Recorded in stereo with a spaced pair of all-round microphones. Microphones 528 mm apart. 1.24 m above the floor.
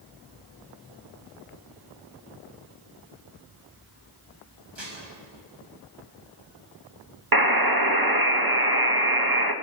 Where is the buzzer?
40° right (ahead or behind), 1.3 m.